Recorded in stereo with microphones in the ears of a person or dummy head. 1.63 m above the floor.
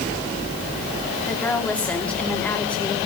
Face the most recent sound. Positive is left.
turn(degrees=10)  # may be behind; listen again after turning